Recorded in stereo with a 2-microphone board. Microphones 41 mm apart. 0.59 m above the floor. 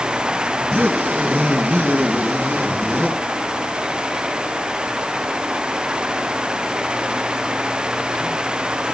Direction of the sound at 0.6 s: 65° right (ahead or behind).